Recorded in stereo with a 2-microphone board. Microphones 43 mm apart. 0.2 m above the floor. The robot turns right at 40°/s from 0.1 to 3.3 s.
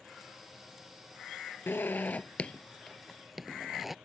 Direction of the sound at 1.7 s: 60° left (ahead or behind).